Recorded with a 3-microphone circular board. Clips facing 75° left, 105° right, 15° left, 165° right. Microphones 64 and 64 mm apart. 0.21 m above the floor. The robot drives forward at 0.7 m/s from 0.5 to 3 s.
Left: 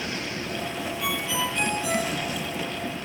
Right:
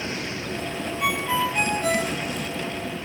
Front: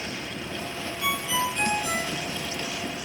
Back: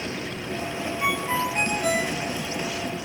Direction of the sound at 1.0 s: 130° right.